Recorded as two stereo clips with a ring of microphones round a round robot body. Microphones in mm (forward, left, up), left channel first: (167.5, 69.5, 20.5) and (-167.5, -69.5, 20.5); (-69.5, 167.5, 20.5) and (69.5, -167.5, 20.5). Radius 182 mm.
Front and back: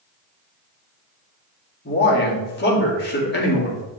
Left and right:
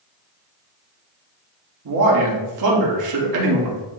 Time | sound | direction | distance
1.9 | a man speaking | 35° right | 2 m